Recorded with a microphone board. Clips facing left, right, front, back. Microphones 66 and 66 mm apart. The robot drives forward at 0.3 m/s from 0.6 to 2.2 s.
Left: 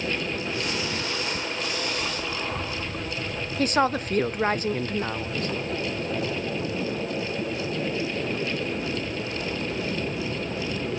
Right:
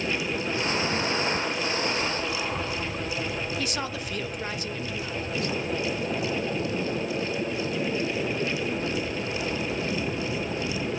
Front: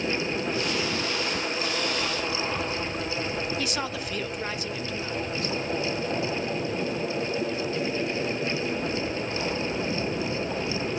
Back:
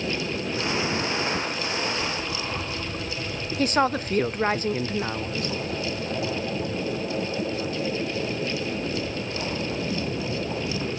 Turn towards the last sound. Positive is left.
turn(degrees=135)